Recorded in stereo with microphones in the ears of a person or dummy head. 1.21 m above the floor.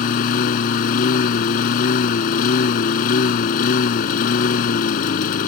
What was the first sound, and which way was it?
A lawn mower, 55° left (ahead or behind).